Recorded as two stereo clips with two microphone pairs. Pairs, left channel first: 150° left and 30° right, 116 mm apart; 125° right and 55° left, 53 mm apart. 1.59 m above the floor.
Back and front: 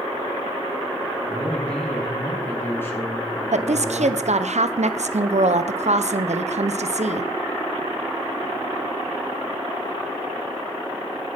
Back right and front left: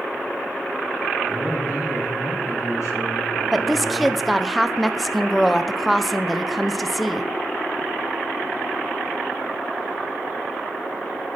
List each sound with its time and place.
1.3 s a man speaking: 125° right, 4 m; by 4.2 s 155° right, 3 m
3.5 s a woman speaking: 35° right, 0.7 m